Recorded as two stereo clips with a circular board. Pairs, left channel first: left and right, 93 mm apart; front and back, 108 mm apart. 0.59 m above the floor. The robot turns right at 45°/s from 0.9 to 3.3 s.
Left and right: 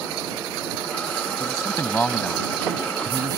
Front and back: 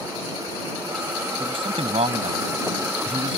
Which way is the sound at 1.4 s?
135° left.